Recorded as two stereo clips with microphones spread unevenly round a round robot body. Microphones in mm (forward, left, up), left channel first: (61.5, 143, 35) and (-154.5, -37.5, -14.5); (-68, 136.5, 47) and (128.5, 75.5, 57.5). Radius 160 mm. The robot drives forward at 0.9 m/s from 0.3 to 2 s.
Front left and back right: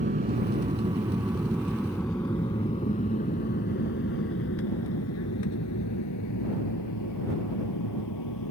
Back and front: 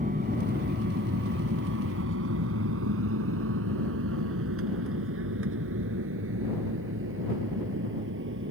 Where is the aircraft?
80° right; by 8.5 s 5° left.